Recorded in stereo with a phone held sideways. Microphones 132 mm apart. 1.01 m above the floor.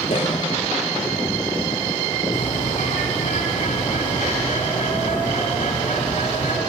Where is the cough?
65° left (ahead or behind), 3.5 m.